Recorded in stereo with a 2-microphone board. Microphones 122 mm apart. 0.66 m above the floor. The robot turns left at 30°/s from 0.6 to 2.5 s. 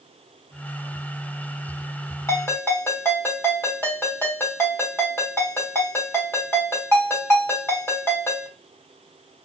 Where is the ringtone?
25° left (ahead or behind), 1.5 m; by 8.5 s 20° left (ahead or behind), 1.5 m.